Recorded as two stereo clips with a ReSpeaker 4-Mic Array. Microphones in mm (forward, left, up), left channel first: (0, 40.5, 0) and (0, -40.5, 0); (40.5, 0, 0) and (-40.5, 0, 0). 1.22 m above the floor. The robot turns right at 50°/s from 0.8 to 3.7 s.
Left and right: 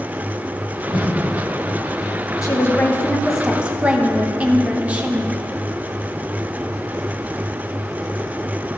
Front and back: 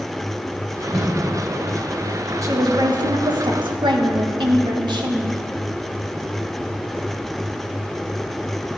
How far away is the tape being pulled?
About 5 m.